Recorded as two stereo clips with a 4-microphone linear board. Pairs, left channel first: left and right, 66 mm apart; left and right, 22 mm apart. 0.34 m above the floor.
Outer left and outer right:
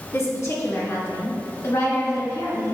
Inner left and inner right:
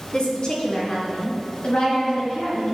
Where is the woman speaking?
50° left (ahead or behind), 2.5 m; by 2.7 s 55° left (ahead or behind), 4.5 m.